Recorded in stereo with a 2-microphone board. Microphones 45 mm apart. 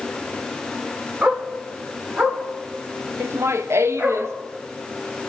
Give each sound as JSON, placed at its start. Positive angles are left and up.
{"t": 1.2, "sound": "a dog barking", "side_deg": -35, "distance_m": 3.5}
{"t": 3.2, "sound": "laughter", "side_deg": -80, "distance_m": 1.2}